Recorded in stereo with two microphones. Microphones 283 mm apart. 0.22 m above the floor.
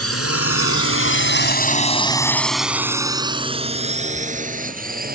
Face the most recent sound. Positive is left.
turn(degrees=-30)  # may be behind; listen again after turning